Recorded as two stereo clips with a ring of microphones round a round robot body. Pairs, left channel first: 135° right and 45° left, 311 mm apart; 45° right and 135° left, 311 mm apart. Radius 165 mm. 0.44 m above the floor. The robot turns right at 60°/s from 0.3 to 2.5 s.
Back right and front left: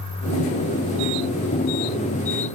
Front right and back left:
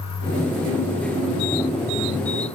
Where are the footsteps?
No footsteps in this recording.